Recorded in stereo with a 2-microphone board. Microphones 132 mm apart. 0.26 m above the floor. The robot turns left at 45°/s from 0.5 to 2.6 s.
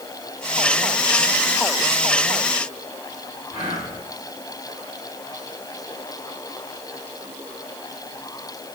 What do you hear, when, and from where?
3.5 s whispering: 40° right (ahead or behind), 2.5 m